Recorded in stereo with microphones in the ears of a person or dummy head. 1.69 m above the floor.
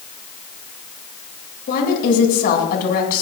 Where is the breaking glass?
No breaking glass in this recording.